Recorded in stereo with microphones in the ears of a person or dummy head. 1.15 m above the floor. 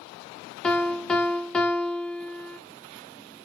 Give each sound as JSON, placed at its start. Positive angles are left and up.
{"t": 0.6, "sound": "a piano", "side_deg": 5, "distance_m": 0.6}